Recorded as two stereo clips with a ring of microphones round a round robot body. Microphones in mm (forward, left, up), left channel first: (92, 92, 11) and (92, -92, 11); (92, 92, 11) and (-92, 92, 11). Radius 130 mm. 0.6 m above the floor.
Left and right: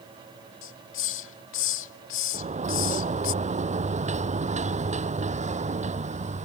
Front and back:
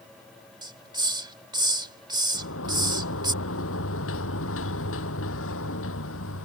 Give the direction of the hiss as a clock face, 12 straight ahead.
8 o'clock.